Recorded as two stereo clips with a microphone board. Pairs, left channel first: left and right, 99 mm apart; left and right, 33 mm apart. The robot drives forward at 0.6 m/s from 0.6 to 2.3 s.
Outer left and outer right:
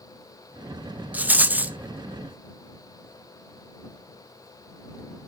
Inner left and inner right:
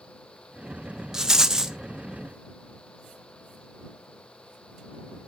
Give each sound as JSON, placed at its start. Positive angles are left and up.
{"t": 1.1, "sound": "a rattle", "side_deg": -15, "distance_m": 0.5}